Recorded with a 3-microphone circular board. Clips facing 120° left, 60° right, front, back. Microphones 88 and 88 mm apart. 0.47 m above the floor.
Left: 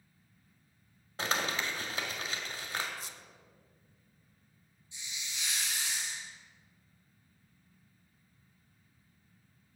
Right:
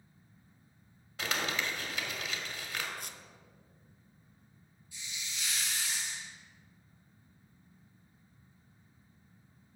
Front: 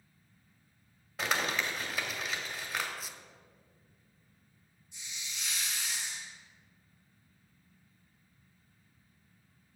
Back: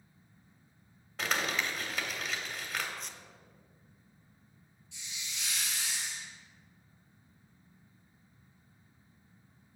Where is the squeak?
85° right, 0.5 m.